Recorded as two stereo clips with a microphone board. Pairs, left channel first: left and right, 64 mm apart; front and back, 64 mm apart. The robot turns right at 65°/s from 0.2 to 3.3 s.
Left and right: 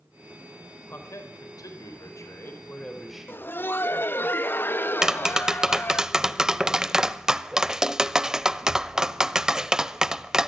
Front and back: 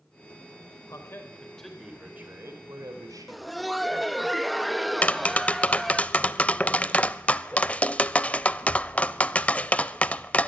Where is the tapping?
25° right, 0.5 m.